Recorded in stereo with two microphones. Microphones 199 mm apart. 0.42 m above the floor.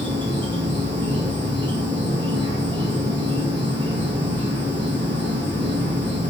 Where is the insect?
25° right (ahead or behind), 1.0 m.